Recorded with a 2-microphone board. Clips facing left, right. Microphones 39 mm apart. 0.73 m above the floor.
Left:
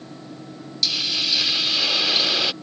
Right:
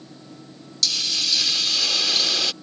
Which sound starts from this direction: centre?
A hiss, at 0.8 s.